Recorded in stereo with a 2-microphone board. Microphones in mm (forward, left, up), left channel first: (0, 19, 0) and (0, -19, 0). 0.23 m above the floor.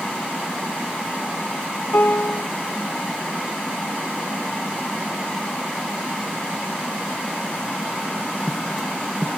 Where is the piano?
60° left (ahead or behind).